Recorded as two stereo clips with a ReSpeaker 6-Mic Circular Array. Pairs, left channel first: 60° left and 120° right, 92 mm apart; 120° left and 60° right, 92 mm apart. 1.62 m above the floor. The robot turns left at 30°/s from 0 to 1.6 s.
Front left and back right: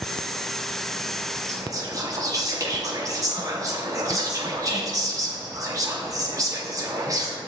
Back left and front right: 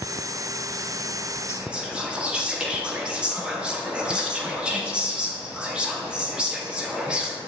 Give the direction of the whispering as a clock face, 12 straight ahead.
4 o'clock.